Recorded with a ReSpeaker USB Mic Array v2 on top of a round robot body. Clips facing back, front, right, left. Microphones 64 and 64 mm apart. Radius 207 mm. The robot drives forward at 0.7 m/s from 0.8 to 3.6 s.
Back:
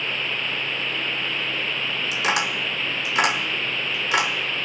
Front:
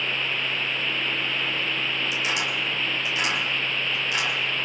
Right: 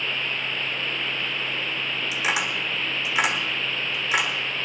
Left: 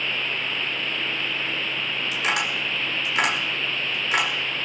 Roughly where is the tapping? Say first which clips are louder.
Back 3 dB, even; behind.